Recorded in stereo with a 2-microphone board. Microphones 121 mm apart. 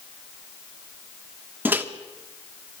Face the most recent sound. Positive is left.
turn(degrees=-15)  # may be behind; listen again after turning